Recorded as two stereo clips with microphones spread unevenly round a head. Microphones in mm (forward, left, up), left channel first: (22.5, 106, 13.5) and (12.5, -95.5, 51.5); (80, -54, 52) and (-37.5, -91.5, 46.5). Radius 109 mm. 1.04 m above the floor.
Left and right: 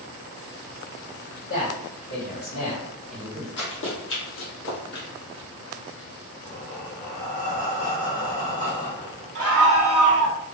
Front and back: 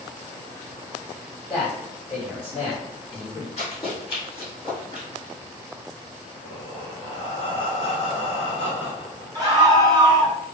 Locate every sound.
1.5 s a man speaking: 80° left, 1.8 m; by 3.5 s 120° left, 0.9 m
3.6 s running footsteps: 60° left, 1.6 m; by 5.0 s 125° left, 1.3 m
6.4 s breathing: 60° left, 1.2 m
9.3 s a scream: 105° right, 0.7 m